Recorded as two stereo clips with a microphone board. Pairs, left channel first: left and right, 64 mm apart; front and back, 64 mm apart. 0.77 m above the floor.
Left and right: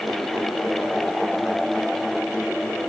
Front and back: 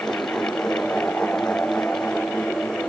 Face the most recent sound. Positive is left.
No sound to turn to.